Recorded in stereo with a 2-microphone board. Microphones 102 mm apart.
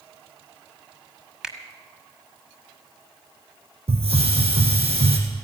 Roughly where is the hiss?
Right.